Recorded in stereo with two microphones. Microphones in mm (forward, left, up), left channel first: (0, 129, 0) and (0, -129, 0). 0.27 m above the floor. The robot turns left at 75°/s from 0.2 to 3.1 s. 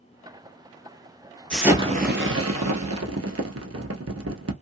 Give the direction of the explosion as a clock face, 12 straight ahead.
12 o'clock.